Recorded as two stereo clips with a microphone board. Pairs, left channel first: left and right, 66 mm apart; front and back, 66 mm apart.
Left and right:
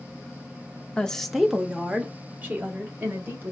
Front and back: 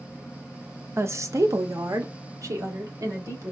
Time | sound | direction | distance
1.0 | a woman speaking | 155° left | 0.6 m